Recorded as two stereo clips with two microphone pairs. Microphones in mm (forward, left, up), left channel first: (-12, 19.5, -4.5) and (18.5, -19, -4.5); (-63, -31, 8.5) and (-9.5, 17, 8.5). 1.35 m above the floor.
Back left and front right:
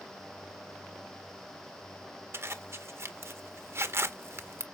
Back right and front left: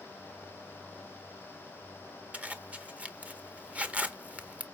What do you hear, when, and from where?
2.3 s a zipper: 30° right, 0.8 m